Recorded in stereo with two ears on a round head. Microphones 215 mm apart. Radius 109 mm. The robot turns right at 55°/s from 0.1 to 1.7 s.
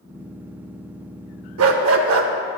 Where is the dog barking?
60° right (ahead or behind), 0.6 m; by 2.3 s 55° right (ahead or behind), 0.6 m.